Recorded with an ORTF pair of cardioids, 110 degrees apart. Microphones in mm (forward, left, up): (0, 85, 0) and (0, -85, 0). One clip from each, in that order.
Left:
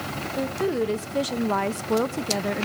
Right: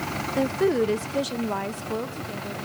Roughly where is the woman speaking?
Ahead right.